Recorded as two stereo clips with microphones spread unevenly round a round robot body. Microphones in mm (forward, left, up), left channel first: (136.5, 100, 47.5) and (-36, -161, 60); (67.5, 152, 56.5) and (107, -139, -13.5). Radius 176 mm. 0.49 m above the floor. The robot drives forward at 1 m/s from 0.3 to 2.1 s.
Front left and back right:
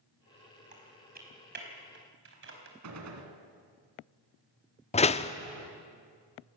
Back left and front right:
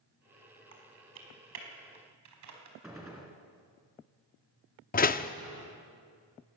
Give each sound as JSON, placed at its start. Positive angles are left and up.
{"t": 0.7, "sound": "typing on a keyboard", "azimuth_deg": -60, "distance_m": 5.0}
{"t": 2.8, "sound": "a gunshot", "azimuth_deg": -170, "distance_m": 2.0}
{"t": 4.9, "sound": "a door slam", "azimuth_deg": 50, "distance_m": 0.8}